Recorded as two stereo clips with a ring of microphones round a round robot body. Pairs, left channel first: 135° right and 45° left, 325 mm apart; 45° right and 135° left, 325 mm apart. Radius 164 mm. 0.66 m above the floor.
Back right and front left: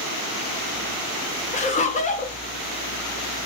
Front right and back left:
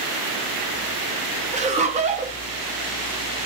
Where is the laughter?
Straight behind, 0.6 m.